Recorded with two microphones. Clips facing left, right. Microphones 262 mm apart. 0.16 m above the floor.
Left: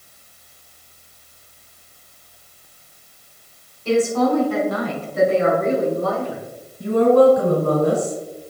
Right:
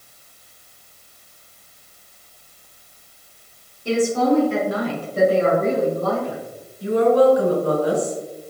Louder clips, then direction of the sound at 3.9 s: Left 1 dB; 15° right (ahead or behind).